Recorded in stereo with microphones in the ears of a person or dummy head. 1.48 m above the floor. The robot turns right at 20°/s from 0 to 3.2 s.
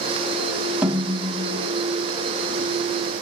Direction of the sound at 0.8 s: 10° right (ahead or behind).